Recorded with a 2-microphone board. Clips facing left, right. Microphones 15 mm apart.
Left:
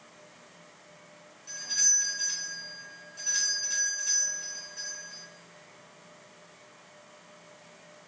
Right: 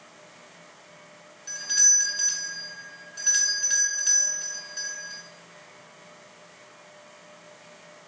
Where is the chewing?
I don't hear chewing.